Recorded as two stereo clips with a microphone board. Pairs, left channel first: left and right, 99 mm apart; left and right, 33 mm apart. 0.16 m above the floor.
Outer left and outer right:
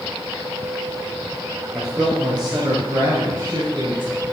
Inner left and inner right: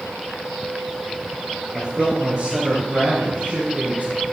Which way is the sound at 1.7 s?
5° right (ahead or behind).